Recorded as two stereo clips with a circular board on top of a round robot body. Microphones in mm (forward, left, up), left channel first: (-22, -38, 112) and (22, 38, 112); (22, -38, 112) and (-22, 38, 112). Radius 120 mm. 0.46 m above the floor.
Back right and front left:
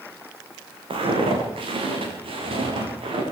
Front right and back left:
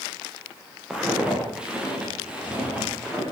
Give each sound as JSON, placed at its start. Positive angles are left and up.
{"t": 0.9, "sound": "footsteps", "azimuth_deg": 40, "distance_m": 6.0}